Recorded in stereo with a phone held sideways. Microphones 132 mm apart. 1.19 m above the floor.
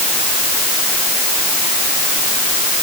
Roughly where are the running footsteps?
No running footsteps in this recording.